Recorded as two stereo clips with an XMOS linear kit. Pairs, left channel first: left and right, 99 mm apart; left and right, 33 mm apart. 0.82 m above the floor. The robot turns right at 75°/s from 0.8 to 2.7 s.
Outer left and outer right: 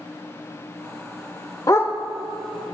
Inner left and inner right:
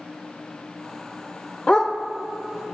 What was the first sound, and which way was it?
A dog barking, 35° left (ahead or behind).